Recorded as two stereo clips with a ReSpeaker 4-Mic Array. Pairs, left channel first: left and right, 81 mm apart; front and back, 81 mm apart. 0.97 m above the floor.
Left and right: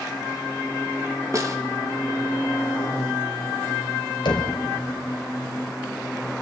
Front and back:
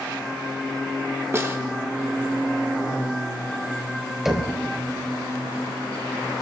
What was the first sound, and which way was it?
A snare drum, 130° right.